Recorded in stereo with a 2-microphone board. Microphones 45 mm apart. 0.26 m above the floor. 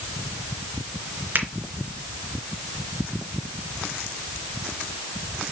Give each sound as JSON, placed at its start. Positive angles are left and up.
{"t": 1.4, "sound": "a finger snap", "side_deg": -45, "distance_m": 3.5}